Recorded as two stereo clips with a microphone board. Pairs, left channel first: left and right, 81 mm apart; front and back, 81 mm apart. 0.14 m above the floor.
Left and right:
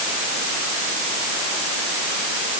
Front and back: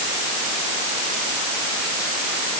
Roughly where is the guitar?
No guitar in this recording.